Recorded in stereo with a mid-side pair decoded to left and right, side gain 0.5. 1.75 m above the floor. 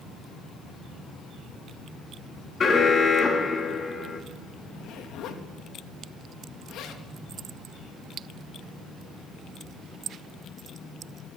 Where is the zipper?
65° left, 3 m.